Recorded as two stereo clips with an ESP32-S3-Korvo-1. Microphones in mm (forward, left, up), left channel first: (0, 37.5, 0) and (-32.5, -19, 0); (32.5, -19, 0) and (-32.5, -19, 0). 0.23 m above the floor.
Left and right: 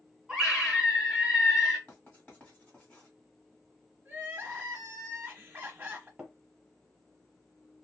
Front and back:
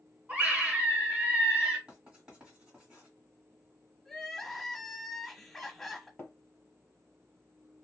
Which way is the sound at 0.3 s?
175° left.